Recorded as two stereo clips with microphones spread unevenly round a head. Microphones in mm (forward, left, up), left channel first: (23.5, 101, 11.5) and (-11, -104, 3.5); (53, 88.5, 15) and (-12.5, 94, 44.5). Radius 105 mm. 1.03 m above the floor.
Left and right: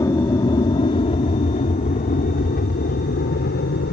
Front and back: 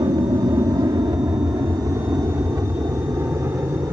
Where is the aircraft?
155° left; by 3.9 s 125° left.